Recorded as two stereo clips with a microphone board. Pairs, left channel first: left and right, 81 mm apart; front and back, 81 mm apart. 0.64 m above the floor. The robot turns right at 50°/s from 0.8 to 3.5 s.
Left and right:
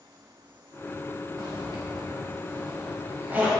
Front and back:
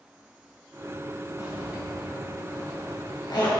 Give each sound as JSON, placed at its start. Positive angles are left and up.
{"t": 1.4, "sound": "a zipper", "azimuth_deg": -125, "distance_m": 4.5}